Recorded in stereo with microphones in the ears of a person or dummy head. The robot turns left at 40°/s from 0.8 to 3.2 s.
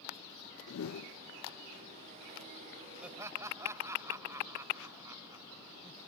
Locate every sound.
0.7 s a whoosh: 75° left (ahead or behind); by 1.1 s 85° left
3.0 s laughter: 5° right (ahead or behind); by 6.0 s 15° right (ahead or behind)